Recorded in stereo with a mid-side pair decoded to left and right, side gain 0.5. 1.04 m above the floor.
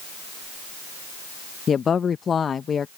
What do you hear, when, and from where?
1.7 s a woman speaking: 40° left